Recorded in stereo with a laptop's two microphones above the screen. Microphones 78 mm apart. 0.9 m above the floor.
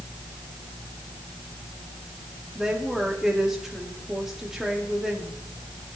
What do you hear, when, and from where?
2.5 s a woman speaking: 5° right (ahead or behind), 1.7 m